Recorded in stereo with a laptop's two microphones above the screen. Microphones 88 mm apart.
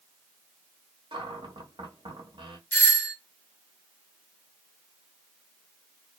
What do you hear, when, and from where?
1.1 s a cupboard door: 70° right (ahead or behind), 0.9 m
2.7 s a doorbell: 20° left (ahead or behind), 0.8 m